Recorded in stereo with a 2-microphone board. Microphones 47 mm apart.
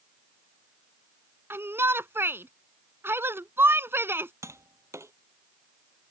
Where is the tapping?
80° right.